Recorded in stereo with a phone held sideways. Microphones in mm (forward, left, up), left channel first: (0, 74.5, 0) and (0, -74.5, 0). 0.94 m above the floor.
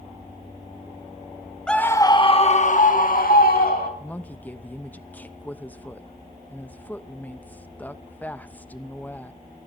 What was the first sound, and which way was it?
A scream, 5° left (ahead or behind).